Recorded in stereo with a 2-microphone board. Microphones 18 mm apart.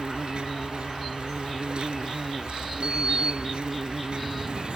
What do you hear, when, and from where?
0.0 s an insect: 80° right
2.8 s a sliding door: 75° right (ahead or behind)